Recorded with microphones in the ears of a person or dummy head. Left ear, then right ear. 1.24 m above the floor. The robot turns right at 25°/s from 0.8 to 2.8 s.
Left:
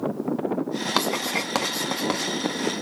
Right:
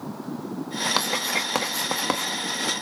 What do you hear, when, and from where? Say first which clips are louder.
1.0 s writing: left 2 dB; 5° left (ahead or behind), 1.3 m; by 2.3 s 30° right (ahead or behind), 1.3 m